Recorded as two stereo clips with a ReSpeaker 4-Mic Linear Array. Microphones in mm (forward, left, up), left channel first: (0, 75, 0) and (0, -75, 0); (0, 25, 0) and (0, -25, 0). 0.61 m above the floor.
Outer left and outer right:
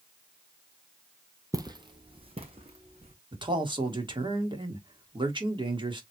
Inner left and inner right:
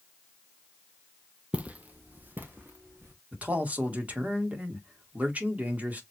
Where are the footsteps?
25° right (ahead or behind), 0.7 m; by 3.1 s 45° right (ahead or behind), 2 m.